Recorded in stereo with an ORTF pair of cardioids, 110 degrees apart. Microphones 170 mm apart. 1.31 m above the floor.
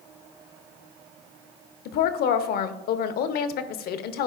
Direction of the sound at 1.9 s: 65° left.